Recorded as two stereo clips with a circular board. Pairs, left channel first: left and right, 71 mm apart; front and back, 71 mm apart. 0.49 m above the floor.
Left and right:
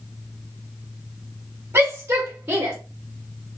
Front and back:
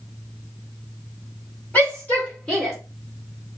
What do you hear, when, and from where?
1.7 s a shout: 50° right, 1.4 m; by 2.8 s 85° right, 1.2 m